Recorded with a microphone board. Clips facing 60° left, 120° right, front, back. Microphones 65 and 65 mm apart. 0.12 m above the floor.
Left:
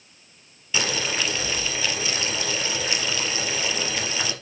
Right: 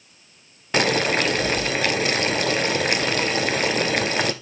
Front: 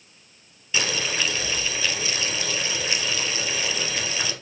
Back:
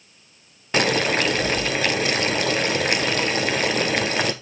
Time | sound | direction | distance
0.7 | boiling | 150° right | 0.7 m